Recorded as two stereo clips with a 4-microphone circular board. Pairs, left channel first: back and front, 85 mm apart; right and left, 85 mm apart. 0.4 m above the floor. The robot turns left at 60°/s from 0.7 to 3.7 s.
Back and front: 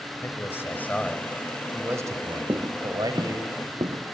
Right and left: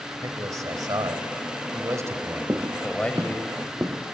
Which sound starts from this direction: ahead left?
Footsteps, at 2.5 s.